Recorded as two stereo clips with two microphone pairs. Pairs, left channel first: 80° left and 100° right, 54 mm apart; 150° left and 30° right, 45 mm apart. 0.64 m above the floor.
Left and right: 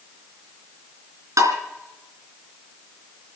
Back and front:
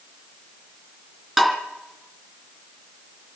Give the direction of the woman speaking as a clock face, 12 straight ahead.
I don't hear a woman speaking.